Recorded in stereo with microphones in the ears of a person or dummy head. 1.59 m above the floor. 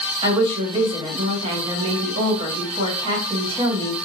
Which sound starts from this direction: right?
A woman speaking, at 0.2 s.